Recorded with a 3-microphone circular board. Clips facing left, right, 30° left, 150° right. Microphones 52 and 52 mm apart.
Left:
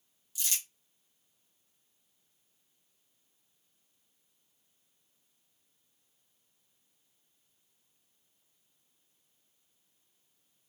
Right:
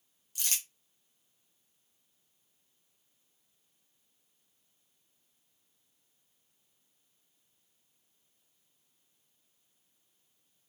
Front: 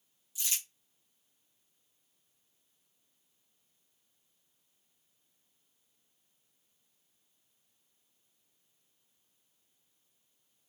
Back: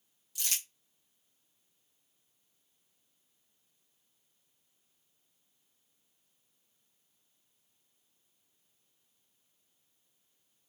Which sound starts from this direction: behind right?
Crumpling, at 0.3 s.